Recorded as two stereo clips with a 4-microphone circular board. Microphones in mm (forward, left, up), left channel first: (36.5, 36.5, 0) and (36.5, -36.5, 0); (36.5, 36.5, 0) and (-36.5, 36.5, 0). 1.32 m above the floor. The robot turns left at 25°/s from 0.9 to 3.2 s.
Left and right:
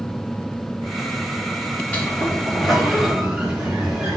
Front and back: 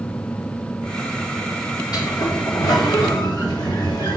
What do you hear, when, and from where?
1.9 s a sliding door: 20° left, 4.5 m; by 4.2 s 10° right, 4.5 m